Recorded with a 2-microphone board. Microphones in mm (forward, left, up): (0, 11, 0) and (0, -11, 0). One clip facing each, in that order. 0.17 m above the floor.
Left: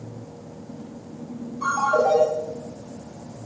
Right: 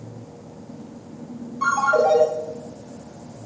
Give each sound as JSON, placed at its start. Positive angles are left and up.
{"t": 1.6, "sound": "a ringtone", "side_deg": -65, "distance_m": 1.1}